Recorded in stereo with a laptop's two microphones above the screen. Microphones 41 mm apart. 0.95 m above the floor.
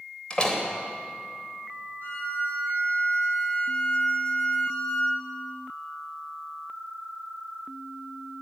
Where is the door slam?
25° left (ahead or behind), 3.5 m.